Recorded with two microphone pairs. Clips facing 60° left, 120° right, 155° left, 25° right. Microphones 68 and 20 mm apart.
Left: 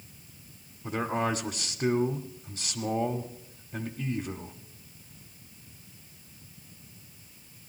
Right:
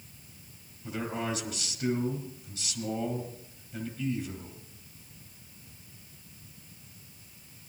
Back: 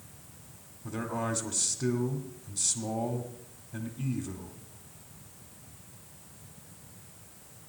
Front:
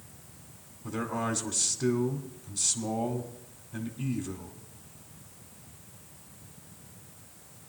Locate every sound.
0.8 s a man speaking: 60° left, 1.2 m